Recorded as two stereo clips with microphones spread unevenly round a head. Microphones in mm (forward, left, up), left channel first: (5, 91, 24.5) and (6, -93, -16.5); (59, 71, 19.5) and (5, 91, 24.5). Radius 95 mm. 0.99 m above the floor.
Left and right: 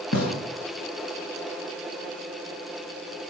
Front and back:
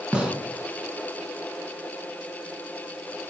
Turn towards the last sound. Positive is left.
turn(degrees=85)